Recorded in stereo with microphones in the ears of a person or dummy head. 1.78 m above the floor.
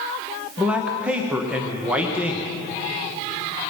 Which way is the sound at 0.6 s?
5° right (ahead or behind).